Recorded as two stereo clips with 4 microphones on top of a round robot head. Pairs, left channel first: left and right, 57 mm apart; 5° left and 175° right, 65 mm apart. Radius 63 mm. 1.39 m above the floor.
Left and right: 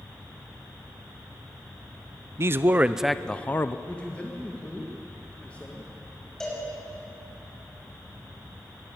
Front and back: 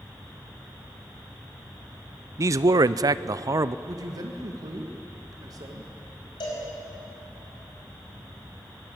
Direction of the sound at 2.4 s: 130° right.